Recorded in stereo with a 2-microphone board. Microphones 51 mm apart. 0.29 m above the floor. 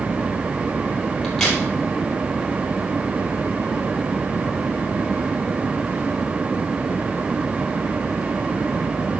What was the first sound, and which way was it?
A crack, 10° left (ahead or behind).